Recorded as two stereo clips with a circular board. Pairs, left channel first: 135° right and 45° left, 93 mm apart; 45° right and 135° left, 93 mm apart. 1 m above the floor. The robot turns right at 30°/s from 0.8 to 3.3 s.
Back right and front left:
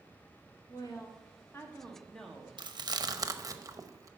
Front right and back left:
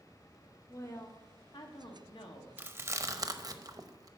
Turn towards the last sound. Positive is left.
turn(degrees=90)